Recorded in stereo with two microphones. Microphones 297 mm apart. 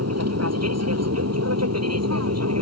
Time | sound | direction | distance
0.0 | an aircraft | 55° right (ahead or behind) | ?